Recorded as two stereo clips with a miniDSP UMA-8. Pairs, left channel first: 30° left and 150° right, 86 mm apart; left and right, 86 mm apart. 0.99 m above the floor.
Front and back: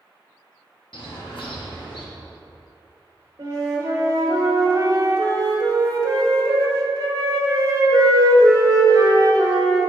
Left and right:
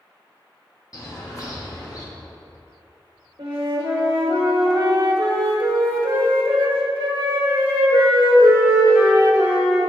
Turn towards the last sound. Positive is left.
turn(degrees=-105)